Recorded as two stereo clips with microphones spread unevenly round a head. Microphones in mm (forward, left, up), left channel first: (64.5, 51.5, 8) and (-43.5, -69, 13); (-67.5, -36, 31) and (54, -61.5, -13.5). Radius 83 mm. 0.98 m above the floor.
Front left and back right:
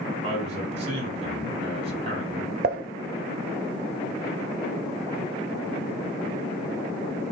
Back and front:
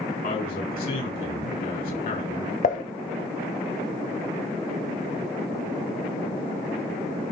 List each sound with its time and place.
0.2 s a man speaking: 175° left, 5 m
2.6 s dishes clattering: 170° right, 0.8 m